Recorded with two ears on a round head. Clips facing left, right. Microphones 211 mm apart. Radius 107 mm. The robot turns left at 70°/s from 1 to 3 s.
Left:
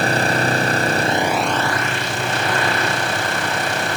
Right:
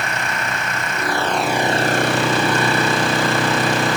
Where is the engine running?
30° left; by 4.0 s 110° right.